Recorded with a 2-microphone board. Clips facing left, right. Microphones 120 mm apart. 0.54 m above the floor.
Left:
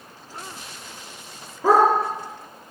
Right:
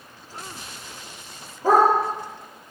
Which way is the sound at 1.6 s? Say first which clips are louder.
Left 1 dB; 85° left.